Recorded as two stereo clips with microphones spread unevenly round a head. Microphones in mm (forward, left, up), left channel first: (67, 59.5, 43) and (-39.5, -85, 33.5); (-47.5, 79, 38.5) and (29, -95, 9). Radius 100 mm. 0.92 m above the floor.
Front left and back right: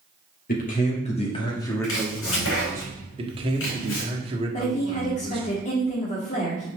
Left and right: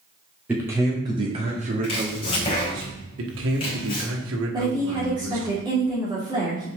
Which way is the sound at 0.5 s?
15° left.